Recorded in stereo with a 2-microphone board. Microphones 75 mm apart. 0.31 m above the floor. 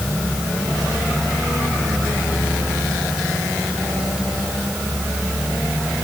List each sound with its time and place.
Only background noise.